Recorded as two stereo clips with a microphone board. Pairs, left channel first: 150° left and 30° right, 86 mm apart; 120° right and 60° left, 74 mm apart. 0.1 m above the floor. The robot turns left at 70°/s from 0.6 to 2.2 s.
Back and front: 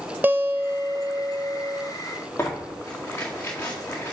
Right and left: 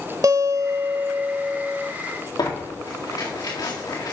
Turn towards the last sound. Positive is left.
turn(degrees=-145)